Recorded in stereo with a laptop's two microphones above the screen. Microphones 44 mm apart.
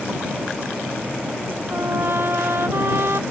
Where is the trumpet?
65° right (ahead or behind).